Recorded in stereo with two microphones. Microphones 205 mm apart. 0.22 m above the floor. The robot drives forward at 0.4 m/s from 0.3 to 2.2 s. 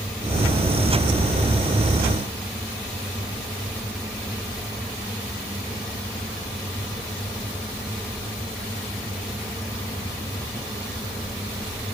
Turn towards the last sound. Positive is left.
No sound to turn to.